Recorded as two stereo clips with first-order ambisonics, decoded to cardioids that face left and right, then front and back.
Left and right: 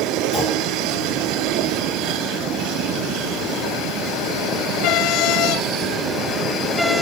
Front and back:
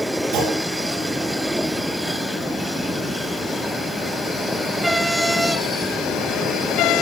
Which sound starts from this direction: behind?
A clunk, at 0.3 s.